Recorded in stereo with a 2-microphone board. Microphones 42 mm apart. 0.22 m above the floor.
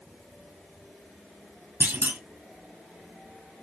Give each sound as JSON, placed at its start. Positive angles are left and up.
{"t": 1.8, "sound": "a clunk", "side_deg": -65, "distance_m": 1.1}